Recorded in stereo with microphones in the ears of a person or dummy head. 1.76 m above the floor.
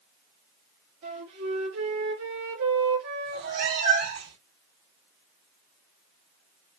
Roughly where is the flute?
Right.